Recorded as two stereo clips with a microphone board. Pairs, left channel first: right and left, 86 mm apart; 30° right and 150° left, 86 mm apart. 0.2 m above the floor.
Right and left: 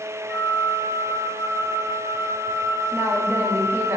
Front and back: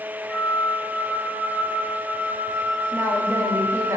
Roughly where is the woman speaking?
Behind left.